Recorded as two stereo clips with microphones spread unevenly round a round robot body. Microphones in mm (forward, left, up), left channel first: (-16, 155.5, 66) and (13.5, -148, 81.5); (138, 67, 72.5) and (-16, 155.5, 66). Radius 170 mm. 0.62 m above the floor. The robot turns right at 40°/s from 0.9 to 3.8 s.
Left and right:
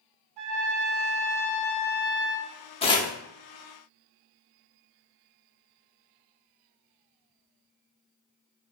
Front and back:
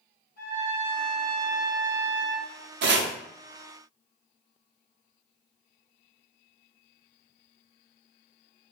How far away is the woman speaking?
I don't hear a woman speaking.